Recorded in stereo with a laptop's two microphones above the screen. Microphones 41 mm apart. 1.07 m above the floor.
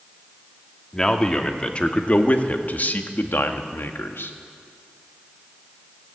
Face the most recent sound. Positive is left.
turn(degrees=75)  # may be behind; listen again after turning